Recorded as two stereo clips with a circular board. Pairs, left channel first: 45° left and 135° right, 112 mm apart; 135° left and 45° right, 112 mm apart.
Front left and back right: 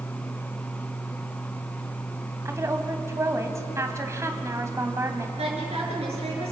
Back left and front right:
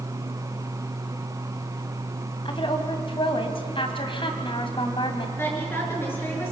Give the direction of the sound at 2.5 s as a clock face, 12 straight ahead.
7 o'clock.